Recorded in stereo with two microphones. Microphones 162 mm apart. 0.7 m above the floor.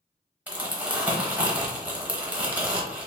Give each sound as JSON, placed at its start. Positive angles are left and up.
{"t": 0.5, "sound": "crumpling", "side_deg": -10, "distance_m": 0.8}